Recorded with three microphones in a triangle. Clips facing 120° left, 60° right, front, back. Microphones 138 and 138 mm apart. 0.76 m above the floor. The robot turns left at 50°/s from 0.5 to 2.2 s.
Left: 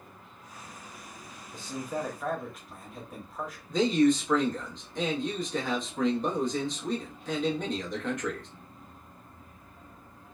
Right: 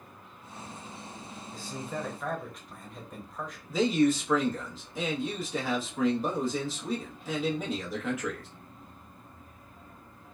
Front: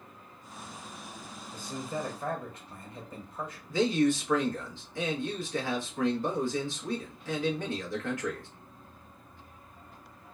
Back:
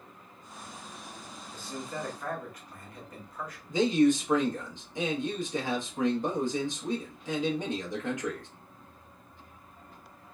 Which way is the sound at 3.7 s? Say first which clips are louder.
Left 1 dB, back 2 dB; 140° right.